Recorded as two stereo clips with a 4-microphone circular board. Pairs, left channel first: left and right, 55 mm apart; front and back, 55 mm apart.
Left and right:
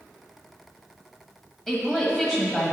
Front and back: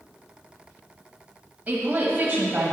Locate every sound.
1.7 s a woman speaking: 160° left, 1.4 m